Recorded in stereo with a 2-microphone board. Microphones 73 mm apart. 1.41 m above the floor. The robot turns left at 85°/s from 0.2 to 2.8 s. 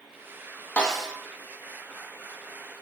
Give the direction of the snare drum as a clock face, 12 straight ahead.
11 o'clock.